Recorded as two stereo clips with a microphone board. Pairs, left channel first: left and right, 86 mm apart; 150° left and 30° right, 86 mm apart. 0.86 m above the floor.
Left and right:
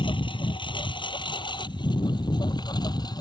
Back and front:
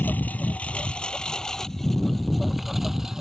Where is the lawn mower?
80° left; by 3.2 s 55° left.